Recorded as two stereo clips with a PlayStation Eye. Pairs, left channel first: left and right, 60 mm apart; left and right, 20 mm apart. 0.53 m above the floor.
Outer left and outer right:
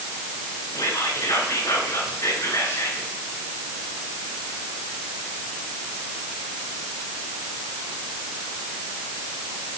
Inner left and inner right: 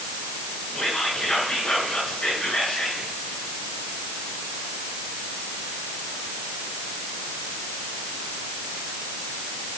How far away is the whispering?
About 8 m.